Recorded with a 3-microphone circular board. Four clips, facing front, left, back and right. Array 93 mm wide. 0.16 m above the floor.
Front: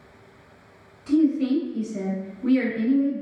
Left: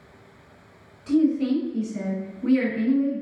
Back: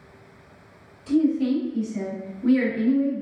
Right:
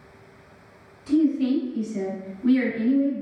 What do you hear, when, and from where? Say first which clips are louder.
1.1 s a woman speaking: even, front 1 dB; 40° left, 1.9 m; by 3.2 s 105° left, 1.5 m